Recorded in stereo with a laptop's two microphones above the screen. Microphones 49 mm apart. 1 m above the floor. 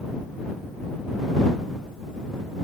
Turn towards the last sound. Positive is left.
No sound to turn to.